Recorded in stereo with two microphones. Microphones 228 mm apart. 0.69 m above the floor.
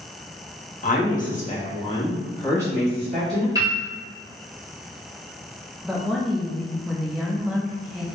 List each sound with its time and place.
0.8 s a woman speaking: 35° left (ahead or behind), 0.9 m; by 3.5 s 5° left (ahead or behind), 1.7 m
3.5 s a piano: 15° right (ahead or behind), 1.3 m
5.8 s a woman speaking: centre (ahead or behind), 0.5 m